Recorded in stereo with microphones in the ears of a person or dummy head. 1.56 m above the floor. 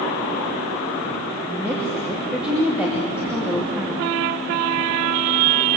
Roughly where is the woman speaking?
Centre.